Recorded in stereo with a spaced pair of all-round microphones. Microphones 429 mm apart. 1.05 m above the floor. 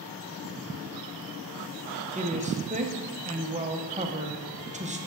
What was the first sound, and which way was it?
A woman speaking, 15° right (ahead or behind).